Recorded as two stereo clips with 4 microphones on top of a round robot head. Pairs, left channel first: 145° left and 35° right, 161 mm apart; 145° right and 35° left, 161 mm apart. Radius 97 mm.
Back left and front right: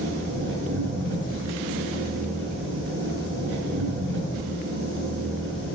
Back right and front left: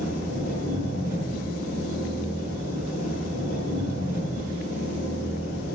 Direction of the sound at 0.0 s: 40° right.